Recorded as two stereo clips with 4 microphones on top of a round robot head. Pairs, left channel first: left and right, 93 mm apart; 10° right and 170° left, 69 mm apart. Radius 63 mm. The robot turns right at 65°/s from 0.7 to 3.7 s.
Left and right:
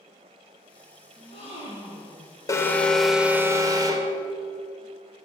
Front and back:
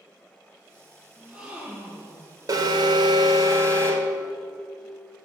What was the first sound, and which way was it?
A gasp, 75° left.